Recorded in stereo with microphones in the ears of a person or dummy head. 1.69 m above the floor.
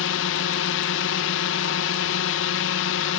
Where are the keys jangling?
No keys jangling in this recording.